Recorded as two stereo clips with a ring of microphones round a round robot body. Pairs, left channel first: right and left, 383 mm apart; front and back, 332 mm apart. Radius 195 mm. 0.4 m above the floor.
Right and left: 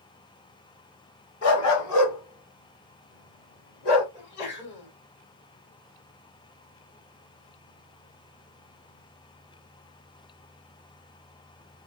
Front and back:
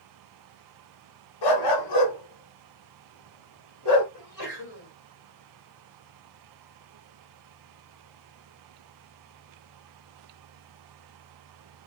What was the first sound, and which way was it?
A dog barking, 30° right.